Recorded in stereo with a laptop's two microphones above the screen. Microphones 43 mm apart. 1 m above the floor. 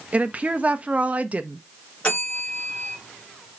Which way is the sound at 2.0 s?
35° left (ahead or behind).